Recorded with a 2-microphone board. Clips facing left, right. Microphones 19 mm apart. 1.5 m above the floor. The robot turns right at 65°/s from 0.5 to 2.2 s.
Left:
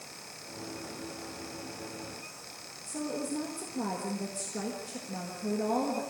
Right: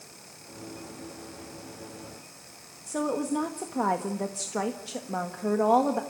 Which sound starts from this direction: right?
A woman speaking, at 2.9 s.